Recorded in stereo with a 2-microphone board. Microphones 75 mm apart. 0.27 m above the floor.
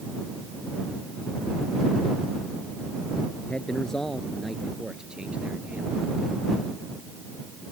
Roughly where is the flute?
I don't hear a flute.